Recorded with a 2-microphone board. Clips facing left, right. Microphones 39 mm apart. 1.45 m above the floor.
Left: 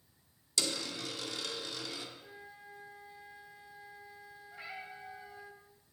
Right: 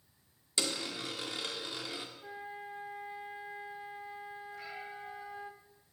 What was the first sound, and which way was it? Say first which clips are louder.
A dropped coin: right 1 dB; 25° right (ahead or behind).